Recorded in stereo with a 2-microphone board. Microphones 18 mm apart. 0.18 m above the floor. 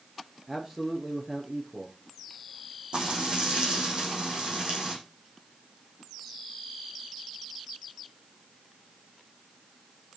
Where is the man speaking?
30° right (ahead or behind), 3.5 m.